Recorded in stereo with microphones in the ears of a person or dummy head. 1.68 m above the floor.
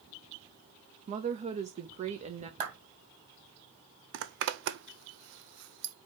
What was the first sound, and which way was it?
A woman speaking, 35° right (ahead or behind).